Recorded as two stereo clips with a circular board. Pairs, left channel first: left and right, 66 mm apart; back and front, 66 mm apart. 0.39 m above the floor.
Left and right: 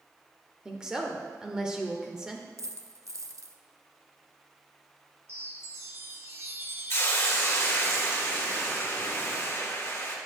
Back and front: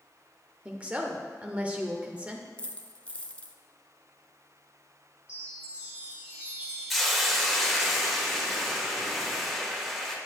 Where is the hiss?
90° left, 1.2 m.